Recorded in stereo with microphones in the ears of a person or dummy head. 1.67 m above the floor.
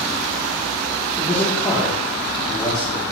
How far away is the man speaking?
About 3.5 m.